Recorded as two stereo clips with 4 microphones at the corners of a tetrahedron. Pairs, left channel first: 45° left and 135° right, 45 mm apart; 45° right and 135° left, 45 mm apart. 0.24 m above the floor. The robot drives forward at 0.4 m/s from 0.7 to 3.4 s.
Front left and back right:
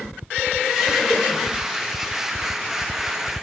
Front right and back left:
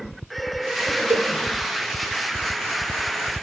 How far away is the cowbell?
About 0.6 m.